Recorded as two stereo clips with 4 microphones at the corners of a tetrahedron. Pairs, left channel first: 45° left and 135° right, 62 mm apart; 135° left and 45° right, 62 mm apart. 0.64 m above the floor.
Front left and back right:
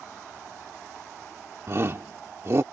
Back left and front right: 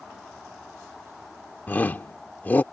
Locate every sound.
1.7 s a shout: 170° right